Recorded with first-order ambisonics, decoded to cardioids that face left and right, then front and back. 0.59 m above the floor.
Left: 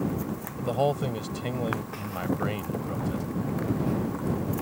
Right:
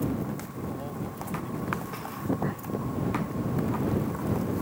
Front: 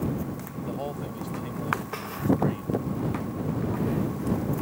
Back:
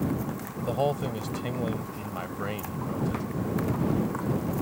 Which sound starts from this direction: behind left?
A man speaking, at 0.6 s.